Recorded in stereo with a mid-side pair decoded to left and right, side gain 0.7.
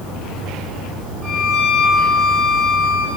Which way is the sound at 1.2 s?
45° right.